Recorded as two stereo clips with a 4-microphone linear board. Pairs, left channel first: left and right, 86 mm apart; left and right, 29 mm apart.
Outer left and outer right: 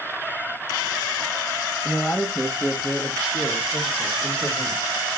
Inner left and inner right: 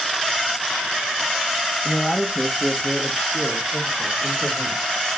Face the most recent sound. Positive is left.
turn(degrees=45)  # may be behind; listen again after turning